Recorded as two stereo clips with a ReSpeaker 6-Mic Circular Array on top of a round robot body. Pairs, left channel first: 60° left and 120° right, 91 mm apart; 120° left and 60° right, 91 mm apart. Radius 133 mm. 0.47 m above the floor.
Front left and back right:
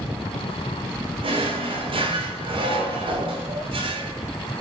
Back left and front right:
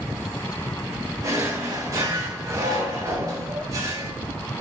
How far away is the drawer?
About 1.2 m.